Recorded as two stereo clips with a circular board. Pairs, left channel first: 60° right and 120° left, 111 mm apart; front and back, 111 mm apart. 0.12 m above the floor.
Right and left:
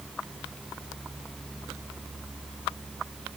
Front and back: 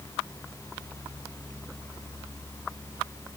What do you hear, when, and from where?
Only background noise.